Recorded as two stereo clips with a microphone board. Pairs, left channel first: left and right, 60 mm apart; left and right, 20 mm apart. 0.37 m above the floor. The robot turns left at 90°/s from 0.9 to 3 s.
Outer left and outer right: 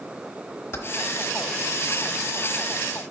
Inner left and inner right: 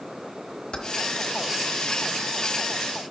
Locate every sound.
0.7 s keys jangling: 45° left (ahead or behind), 1.1 m